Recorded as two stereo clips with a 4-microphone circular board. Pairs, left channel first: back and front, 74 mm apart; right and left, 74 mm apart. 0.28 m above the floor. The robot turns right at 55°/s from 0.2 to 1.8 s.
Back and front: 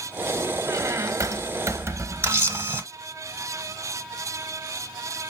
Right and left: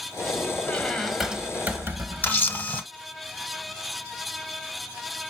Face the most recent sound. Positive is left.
turn(degrees=-35)